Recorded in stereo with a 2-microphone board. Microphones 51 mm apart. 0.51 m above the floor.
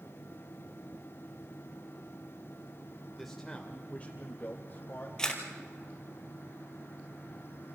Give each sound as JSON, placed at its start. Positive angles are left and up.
{"t": 3.2, "sound": "a man speaking", "side_deg": 0, "distance_m": 1.5}
{"t": 5.2, "sound": "a camera shutter", "side_deg": 15, "distance_m": 2.5}